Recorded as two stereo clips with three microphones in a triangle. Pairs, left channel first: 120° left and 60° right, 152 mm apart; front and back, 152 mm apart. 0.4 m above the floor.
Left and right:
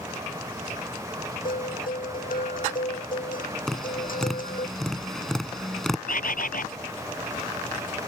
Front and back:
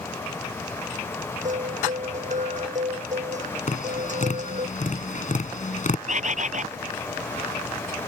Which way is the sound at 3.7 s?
30° left.